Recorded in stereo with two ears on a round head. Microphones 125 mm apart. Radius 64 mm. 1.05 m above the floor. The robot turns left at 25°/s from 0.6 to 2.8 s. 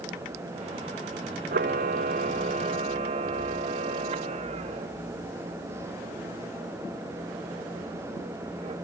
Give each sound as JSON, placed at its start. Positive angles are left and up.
{"t": 1.5, "sound": "a camera shutter", "side_deg": -65, "distance_m": 0.7}